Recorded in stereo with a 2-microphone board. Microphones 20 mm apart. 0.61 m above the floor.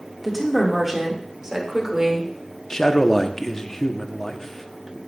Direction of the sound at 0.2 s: Centre (ahead or behind).